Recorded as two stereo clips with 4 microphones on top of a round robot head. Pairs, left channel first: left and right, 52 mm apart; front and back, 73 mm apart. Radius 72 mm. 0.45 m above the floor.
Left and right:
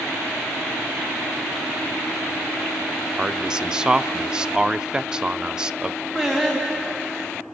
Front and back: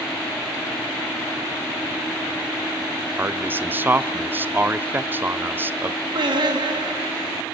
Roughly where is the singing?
Behind.